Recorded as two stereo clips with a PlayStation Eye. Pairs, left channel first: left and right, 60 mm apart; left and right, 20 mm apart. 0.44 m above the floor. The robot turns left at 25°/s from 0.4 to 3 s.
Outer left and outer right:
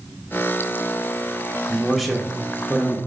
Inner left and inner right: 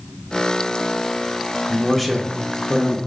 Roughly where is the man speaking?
Centre.